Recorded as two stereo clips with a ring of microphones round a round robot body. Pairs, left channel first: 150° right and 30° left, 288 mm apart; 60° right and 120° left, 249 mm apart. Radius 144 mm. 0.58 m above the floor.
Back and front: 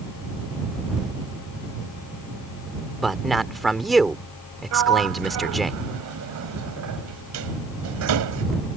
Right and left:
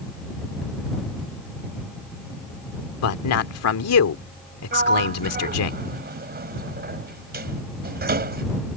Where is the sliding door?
70° left.